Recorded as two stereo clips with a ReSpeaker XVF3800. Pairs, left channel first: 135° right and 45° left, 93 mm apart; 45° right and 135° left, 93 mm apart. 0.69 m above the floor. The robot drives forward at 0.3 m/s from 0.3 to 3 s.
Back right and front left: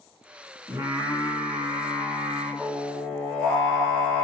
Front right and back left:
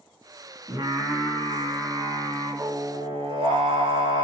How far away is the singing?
About 1.0 m.